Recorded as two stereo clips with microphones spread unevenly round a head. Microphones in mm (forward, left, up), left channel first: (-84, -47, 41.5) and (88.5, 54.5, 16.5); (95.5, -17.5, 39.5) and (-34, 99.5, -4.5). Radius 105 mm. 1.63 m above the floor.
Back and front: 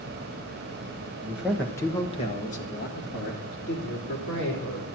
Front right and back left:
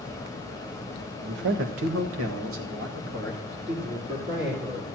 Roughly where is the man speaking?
Left.